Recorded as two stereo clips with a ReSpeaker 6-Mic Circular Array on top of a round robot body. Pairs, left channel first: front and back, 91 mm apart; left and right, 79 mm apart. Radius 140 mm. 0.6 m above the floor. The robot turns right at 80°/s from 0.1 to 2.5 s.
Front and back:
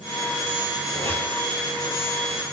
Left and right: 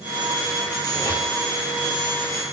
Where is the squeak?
50° left, 5 m; by 1.3 s 85° left, 5 m.